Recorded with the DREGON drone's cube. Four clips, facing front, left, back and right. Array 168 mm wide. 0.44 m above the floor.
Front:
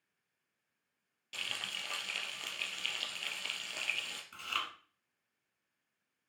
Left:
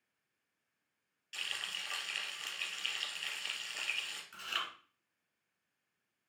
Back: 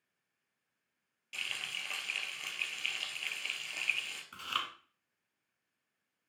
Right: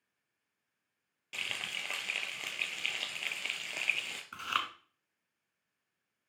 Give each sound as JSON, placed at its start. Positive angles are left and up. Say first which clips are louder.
{"t": 1.3, "sound": "frying", "louder": "right 3 dB, even", "azimuth_deg": -75, "distance_m": 1.9}
{"t": 4.3, "sound": "chewing", "louder": "right 7 dB, back 1 dB", "azimuth_deg": -105, "distance_m": 1.7}